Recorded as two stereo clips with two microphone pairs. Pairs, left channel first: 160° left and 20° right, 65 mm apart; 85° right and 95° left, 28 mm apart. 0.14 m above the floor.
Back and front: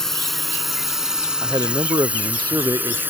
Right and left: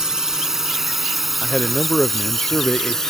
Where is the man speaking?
35° right.